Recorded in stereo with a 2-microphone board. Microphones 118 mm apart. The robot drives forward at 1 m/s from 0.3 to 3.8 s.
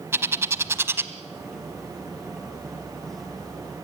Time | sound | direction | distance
0.1 | a bird | 20° right (ahead or behind) | 1.0 m